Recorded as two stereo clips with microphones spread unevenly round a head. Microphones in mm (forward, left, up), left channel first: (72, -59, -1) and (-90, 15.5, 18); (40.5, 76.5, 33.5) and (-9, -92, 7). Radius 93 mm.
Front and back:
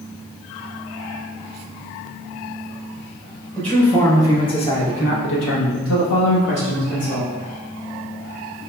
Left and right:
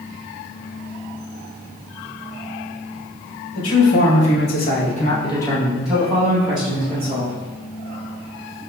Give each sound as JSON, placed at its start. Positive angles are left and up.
{"t": 3.5, "sound": "a man speaking", "azimuth_deg": 60, "distance_m": 1.6}